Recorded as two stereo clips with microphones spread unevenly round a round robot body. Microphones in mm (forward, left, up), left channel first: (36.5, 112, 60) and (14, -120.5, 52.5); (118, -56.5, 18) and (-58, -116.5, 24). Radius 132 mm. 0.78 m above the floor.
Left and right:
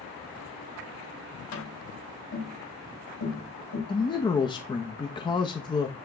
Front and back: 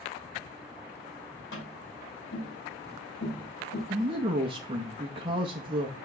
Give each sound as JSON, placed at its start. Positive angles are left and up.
{"t": 1.5, "sound": "tapping", "azimuth_deg": 75, "distance_m": 6.0}
{"t": 3.9, "sound": "a man speaking", "azimuth_deg": 145, "distance_m": 0.8}